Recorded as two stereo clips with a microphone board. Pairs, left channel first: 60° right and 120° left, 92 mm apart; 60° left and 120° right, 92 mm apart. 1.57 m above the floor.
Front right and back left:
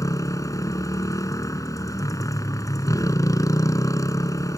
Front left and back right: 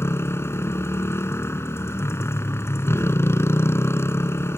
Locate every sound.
0.0 s a motorcycle: 5° right